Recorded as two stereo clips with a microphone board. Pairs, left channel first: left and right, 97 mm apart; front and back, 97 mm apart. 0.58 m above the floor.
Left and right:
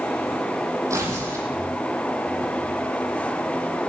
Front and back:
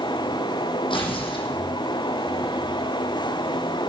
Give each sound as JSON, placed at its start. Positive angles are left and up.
{"t": 0.9, "sound": "tearing paper", "azimuth_deg": -30, "distance_m": 7.5}